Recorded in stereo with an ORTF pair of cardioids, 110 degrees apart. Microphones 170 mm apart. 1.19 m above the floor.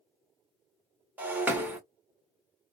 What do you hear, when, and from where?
1.2 s breaking glass: 10° right, 1.9 m